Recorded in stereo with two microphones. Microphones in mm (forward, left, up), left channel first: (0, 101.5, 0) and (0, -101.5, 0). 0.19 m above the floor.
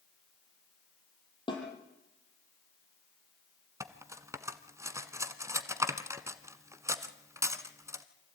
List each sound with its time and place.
1.5 s a snare drum: 25° left (ahead or behind), 5 m
3.8 s cutlery clinking: 15° right (ahead or behind), 1.0 m